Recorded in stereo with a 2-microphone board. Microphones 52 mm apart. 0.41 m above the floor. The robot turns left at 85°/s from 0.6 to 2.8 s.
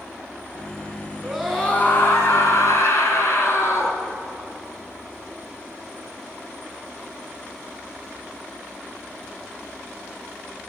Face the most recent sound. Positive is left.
turn(degrees=65)